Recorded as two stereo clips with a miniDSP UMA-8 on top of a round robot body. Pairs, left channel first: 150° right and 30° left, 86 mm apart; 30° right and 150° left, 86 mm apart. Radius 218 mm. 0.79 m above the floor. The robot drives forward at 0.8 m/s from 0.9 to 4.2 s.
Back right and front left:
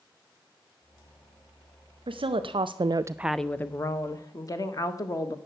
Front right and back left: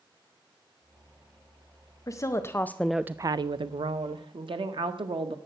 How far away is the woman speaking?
About 1.0 m.